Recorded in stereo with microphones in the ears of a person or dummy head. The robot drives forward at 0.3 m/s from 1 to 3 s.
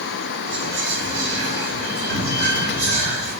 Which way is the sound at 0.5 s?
60° right (ahead or behind).